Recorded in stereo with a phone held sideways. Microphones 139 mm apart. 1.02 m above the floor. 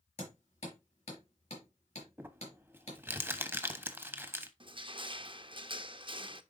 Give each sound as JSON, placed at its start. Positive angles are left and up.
{"t": 0.2, "sound": "hammering", "side_deg": 55, "distance_m": 5.0}
{"t": 2.2, "sound": "crumpling", "side_deg": -15, "distance_m": 1.0}
{"t": 4.6, "sound": "crushing", "side_deg": -35, "distance_m": 0.7}